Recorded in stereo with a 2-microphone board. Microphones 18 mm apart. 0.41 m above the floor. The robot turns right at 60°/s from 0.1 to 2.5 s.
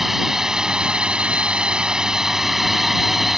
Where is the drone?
160° right; by 3.4 s 15° right.